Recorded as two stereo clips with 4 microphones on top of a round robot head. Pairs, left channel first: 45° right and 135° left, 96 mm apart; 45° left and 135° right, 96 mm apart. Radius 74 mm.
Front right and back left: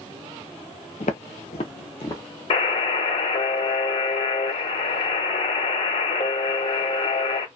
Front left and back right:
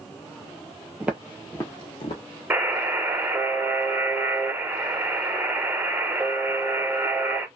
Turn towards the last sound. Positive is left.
turn(degrees=-60)